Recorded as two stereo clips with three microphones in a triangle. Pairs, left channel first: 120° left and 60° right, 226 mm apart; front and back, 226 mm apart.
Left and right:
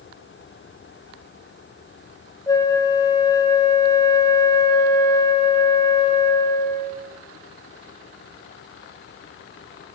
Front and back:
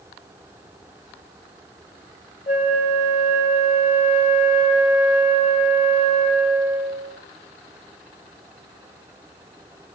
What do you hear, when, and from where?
2.5 s a flute: 50° left, 1.1 m